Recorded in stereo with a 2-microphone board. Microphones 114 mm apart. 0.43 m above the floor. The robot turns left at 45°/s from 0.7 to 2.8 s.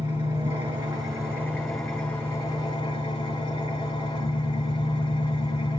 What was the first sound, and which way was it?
An engine running, 135° right.